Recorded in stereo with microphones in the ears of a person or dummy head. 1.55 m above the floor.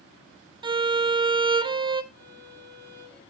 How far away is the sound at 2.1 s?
About 8.5 m.